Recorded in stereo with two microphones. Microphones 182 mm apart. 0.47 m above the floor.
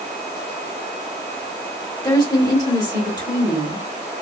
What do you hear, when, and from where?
2.0 s a woman speaking: 25° left (ahead or behind), 1.2 m